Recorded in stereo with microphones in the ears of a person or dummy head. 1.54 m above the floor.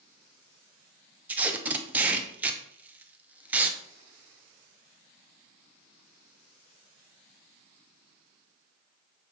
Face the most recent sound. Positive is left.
turn(degrees=-5)  # may be behind; listen again after turning